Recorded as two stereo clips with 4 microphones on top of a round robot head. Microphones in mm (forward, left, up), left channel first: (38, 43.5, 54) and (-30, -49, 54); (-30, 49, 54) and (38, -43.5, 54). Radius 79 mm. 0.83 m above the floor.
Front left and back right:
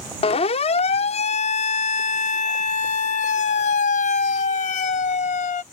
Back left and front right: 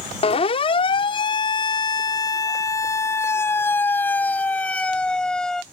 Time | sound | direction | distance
0.2 | a siren | 90° left | ?